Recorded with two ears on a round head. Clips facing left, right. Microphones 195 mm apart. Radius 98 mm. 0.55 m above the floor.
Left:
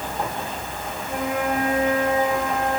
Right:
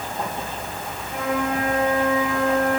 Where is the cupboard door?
I don't hear a cupboard door.